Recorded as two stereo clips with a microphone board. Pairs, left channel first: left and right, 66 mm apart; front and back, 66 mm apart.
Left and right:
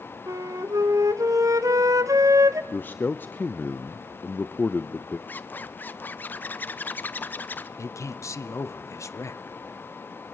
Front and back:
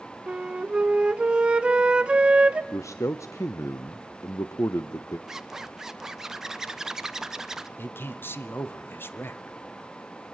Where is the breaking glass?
I don't hear breaking glass.